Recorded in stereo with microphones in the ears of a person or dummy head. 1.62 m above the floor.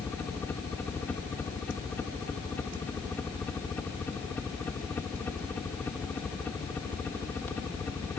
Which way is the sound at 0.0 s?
10° left (ahead or behind).